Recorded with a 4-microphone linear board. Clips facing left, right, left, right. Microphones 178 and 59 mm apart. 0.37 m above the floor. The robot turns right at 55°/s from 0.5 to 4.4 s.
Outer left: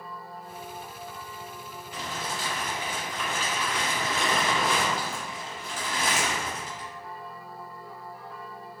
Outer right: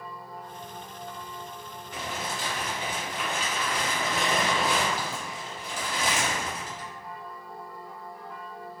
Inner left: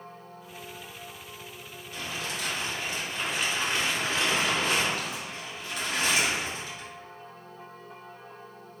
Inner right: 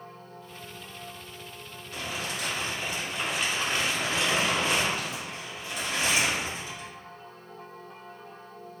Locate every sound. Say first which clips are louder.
1.9 s crumpling: outer right 1 dB, inner right 1 dB; 75° right, 1.3 m; by 6.9 s 60° left, 1.3 m